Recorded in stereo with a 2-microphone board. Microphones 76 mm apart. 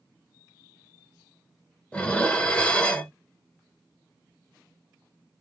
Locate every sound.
1.9 s dishes clattering: 15° left (ahead or behind), 0.8 m